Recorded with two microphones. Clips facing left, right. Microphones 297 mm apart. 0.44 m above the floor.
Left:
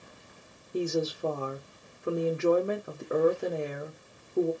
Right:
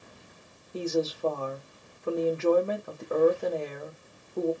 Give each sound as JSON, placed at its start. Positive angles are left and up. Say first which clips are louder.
{"t": 0.7, "sound": "a woman speaking", "louder": "right 1 dB", "side_deg": 15, "distance_m": 1.2}